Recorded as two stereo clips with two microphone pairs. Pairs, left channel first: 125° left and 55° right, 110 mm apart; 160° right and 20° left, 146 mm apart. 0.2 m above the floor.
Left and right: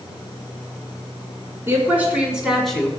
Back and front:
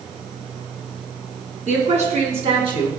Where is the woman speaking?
10° left, 2.5 m; by 2.9 s 50° left, 1.7 m.